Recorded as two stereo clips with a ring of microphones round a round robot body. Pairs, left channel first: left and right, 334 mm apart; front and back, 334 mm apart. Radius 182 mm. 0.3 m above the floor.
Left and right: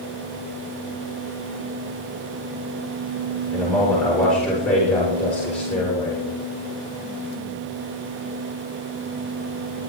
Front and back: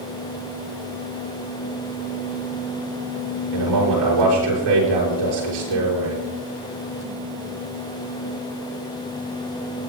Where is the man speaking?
175° left, 7.5 m.